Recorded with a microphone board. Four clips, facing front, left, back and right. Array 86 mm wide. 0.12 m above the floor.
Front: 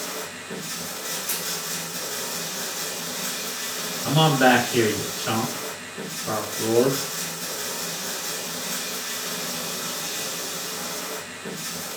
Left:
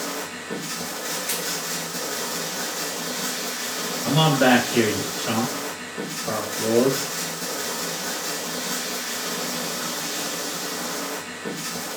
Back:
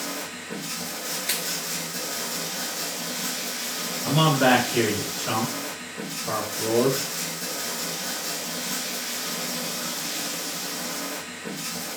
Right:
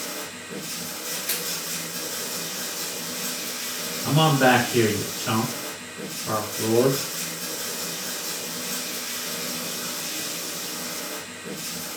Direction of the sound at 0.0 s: 90° left.